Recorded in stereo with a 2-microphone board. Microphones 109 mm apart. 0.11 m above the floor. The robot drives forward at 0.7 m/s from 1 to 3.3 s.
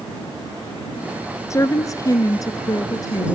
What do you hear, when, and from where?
1.5 s a woman speaking: 25° left (ahead or behind), 1.5 m; by 3.4 s 30° left (ahead or behind), 1.4 m